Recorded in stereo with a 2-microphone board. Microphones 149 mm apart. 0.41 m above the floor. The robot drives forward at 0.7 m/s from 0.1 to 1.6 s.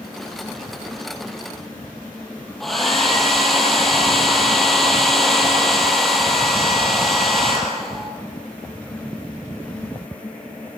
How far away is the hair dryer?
About 3.5 m.